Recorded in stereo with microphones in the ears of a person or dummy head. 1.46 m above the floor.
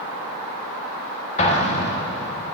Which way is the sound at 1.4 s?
35° left (ahead or behind).